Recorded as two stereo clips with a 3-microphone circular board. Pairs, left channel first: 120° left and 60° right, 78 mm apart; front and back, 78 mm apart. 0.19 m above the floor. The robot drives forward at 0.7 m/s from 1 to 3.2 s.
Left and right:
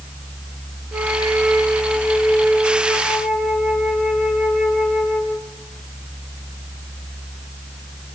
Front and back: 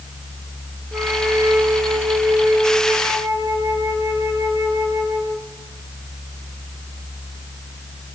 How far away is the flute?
About 3 m.